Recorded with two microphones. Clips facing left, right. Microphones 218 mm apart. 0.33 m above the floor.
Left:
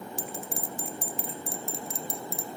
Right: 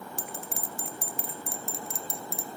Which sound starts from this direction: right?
A bell, at 0.2 s.